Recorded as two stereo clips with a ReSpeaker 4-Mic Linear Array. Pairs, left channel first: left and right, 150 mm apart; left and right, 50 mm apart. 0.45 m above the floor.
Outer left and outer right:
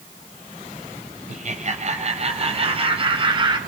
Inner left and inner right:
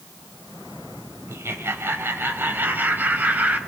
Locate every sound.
1.3 s laughter: 60° right (ahead or behind), 3 m; by 3.6 s 35° right (ahead or behind), 3 m